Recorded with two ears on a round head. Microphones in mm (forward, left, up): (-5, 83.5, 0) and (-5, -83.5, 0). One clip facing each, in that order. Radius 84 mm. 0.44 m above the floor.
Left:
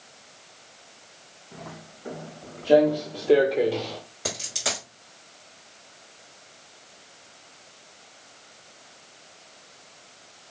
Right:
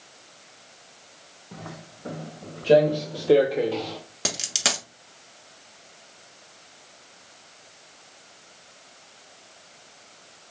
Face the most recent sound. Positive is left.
turn(degrees=-80)